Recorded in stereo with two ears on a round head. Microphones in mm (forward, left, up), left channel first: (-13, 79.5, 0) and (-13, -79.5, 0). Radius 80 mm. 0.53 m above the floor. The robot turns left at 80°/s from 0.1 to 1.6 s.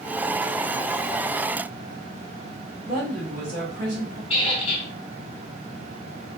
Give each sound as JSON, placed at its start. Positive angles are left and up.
{"t": 2.9, "sound": "a woman speaking", "side_deg": -45, "distance_m": 1.8}
{"t": 4.3, "sound": "a squeak", "side_deg": 35, "distance_m": 1.3}